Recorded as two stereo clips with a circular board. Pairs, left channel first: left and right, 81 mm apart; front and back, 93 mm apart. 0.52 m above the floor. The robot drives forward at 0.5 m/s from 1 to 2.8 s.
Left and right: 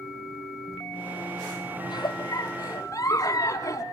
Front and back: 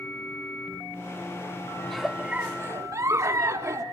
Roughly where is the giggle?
Left.